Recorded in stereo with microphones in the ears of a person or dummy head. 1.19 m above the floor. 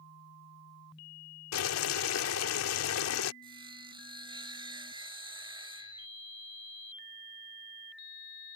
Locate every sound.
1.5 s boiling: 85° left
3.4 s sawing: 25° right (ahead or behind)